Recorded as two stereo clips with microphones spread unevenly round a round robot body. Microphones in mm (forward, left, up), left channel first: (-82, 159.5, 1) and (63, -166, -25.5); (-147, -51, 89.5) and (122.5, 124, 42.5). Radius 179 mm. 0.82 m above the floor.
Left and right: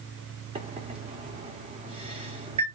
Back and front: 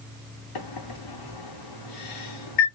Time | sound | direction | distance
0.6 | a microwave | 140° right | 1.5 m